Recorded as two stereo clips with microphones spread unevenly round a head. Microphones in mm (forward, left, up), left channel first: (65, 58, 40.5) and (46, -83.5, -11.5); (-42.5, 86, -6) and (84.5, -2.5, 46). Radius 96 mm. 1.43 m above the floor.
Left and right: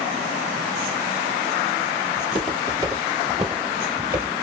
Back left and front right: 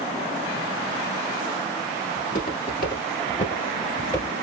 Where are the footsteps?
170° left, 1.9 m; by 4.3 s 20° right, 1.3 m.